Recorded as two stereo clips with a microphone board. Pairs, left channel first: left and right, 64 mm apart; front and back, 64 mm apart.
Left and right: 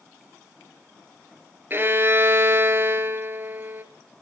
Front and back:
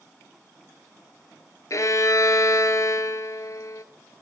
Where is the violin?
35° right, 1.6 m.